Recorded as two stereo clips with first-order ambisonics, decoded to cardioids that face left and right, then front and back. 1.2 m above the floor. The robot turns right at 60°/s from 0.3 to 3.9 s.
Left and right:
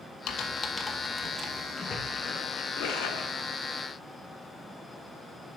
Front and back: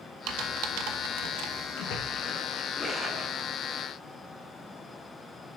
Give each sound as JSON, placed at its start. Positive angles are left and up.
{"t": 0.3, "sound": "typing on a keyboard", "azimuth_deg": 140, "distance_m": 1.1}
{"t": 1.8, "sound": "a splash", "azimuth_deg": 15, "distance_m": 1.8}